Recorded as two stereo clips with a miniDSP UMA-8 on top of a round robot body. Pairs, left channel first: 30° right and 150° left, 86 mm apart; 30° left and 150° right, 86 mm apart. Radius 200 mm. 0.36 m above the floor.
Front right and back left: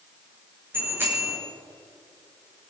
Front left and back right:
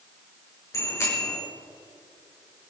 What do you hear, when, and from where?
0.7 s a bicycle bell: 85° left, 5.5 m